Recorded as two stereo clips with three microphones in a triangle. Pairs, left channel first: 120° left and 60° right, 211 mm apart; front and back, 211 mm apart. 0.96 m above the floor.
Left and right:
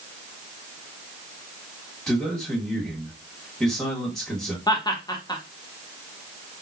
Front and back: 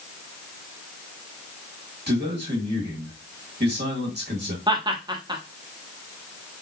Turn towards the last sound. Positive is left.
turn(degrees=155)